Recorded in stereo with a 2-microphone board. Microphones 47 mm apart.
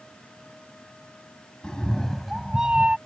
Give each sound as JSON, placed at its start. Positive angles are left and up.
{"t": 1.6, "sound": "a cat meowing", "side_deg": 15}